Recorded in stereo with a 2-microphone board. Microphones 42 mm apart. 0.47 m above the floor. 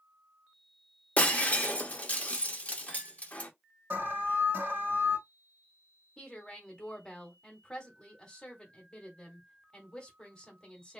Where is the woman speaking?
20° left (ahead or behind), 1.1 m.